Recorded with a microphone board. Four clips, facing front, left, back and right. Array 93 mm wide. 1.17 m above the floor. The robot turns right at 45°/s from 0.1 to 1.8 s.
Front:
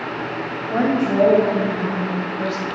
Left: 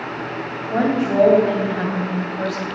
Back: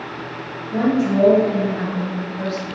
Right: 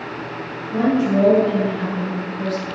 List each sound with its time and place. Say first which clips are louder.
0.7 s a woman speaking: right 1 dB, back 1 dB; 35° left, 3 m; by 2.7 s 85° left, 3 m